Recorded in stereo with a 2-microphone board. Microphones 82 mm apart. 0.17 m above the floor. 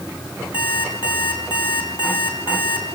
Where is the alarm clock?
75° left (ahead or behind), 6.5 m.